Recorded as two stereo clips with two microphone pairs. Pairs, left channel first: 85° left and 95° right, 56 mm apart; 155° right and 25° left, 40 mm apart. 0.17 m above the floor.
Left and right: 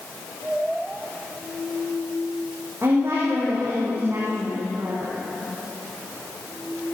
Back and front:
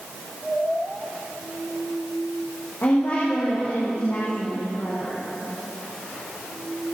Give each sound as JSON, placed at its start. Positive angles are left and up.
{"t": 2.8, "sound": "a woman speaking", "azimuth_deg": -145, "distance_m": 7.5}